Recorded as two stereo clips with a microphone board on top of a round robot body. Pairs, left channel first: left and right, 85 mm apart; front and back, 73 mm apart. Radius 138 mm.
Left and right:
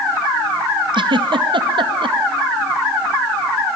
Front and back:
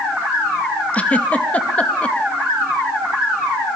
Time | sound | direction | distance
0.9 | a giggle | 70° right | 2.5 m